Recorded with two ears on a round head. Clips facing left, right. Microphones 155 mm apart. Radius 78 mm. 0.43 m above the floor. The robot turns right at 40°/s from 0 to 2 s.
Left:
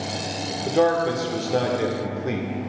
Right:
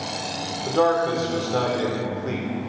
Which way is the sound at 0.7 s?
15° left (ahead or behind).